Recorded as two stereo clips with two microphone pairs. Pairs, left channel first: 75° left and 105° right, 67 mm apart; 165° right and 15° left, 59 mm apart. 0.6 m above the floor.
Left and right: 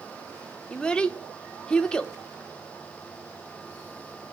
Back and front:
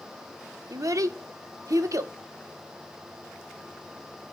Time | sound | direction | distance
0.7 | a child speaking | straight ahead | 0.5 m